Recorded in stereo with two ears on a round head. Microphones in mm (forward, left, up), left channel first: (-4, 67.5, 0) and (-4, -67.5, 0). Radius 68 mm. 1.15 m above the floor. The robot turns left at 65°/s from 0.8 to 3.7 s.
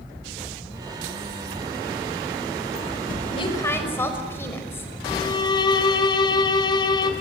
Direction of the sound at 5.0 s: 30° left (ahead or behind).